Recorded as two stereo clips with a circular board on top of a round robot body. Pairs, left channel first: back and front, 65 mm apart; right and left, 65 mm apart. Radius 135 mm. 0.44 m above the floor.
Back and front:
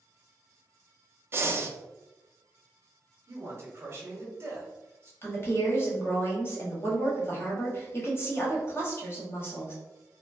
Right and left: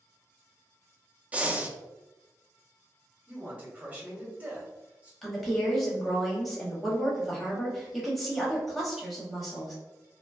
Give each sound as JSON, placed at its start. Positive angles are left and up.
{"t": 1.3, "sound": "breathing", "azimuth_deg": 30, "distance_m": 0.6}
{"t": 3.3, "sound": "a man speaking", "azimuth_deg": 30, "distance_m": 1.1}
{"t": 5.2, "sound": "a woman speaking", "azimuth_deg": 180, "distance_m": 1.4}